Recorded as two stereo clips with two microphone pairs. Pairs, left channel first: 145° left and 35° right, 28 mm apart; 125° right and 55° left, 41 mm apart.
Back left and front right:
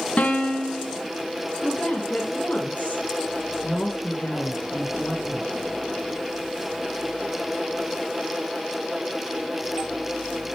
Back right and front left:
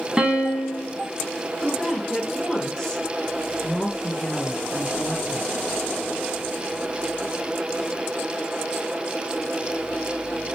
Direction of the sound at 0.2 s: 125° left.